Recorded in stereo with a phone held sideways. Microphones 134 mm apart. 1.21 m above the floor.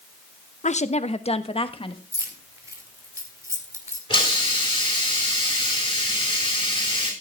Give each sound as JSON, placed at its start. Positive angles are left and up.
{"t": 0.6, "sound": "a woman speaking", "side_deg": 60, "distance_m": 0.9}
{"t": 2.1, "sound": "keys jangling", "side_deg": -25, "distance_m": 2.5}
{"t": 4.1, "sound": "a hiss", "side_deg": 35, "distance_m": 6.0}